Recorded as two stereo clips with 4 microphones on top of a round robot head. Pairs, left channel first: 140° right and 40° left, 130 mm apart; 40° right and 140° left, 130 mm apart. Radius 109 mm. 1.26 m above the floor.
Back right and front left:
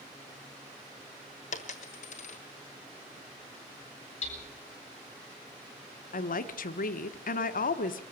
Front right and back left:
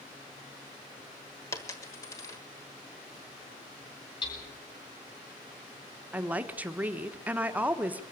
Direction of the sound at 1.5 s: 105° right.